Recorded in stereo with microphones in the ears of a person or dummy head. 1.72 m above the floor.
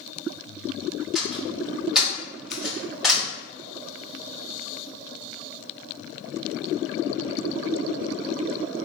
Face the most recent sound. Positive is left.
turn(degrees=-5)  # may be behind; listen again after turning